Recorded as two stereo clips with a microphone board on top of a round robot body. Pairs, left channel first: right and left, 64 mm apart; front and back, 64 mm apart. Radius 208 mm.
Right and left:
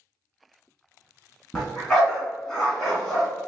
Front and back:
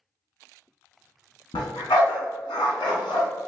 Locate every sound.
1.5 s a dog barking: straight ahead, 1.3 m